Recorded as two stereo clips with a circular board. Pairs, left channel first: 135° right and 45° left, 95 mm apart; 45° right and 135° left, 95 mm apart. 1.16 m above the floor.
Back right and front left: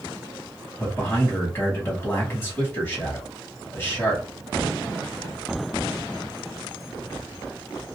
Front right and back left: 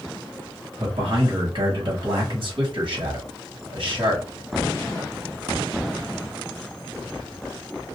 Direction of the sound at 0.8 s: 165° left.